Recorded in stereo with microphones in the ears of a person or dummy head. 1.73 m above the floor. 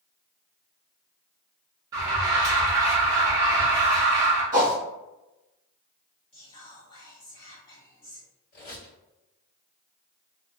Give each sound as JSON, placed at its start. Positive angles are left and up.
{"t": 1.9, "sound": "an alarm", "side_deg": -15, "distance_m": 0.6}
{"t": 4.5, "sound": "a whoosh", "side_deg": -15, "distance_m": 1.2}
{"t": 6.3, "sound": "whispering", "side_deg": 30, "distance_m": 1.1}
{"t": 8.5, "sound": "a squeak", "side_deg": 40, "distance_m": 1.9}